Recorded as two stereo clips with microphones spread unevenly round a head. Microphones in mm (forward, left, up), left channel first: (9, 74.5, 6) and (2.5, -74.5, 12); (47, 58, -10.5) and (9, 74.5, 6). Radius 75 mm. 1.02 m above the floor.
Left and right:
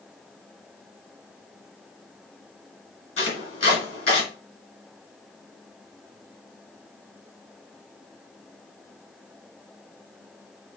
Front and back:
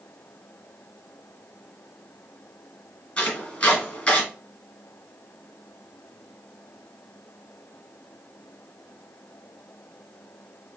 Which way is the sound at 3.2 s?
40° left.